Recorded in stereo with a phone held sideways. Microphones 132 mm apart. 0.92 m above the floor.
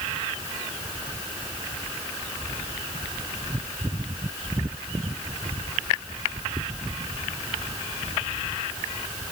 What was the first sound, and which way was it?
Only background noise.